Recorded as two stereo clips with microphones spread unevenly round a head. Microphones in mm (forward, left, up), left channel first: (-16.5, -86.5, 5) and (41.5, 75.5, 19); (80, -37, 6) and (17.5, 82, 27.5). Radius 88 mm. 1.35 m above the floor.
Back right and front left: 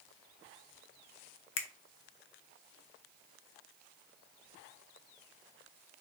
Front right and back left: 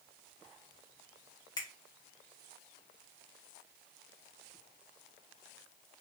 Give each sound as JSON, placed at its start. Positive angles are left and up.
{"t": 1.6, "sound": "a finger snap", "azimuth_deg": -130, "distance_m": 0.6}